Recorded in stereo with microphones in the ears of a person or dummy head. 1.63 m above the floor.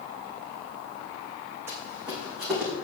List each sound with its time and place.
1.7 s running footsteps: 15° right (ahead or behind), 4.5 m; by 2.7 s centre (ahead or behind), 5 m